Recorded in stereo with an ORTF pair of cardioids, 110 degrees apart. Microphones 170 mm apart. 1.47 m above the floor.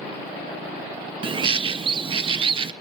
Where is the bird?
30° right, 0.8 m.